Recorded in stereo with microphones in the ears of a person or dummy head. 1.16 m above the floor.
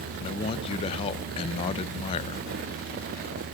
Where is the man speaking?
30° left (ahead or behind), 0.7 m.